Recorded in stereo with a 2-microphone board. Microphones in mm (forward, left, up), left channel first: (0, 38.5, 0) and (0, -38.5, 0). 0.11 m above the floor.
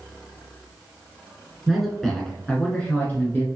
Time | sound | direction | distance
1.7 | a man speaking | 5° right (ahead or behind) | 1.2 m